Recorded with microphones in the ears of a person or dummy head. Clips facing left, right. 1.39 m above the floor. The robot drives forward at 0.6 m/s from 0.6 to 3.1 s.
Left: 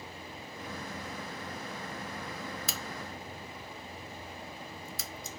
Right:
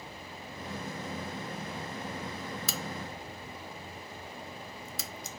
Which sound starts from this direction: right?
A crack, at 2.7 s.